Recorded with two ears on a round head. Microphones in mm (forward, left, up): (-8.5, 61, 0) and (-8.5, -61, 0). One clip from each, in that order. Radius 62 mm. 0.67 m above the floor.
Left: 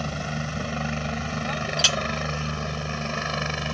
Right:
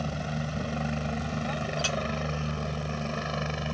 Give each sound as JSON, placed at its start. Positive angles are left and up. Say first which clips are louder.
{"t": 0.0, "sound": "a helicopter", "louder": "left 4 dB", "side_deg": 30}
{"t": 1.8, "sound": "a clink", "louder": "left 10 dB", "side_deg": 65}